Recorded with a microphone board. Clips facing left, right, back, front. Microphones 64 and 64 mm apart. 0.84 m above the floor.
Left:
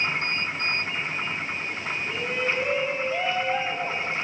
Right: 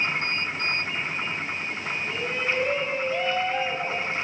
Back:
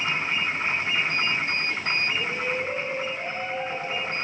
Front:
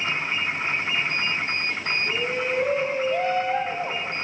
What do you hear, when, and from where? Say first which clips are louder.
2.1 s a shout: left 1 dB, front 2 dB; straight ahead, 5 m; by 4.1 s 15° left, 7 m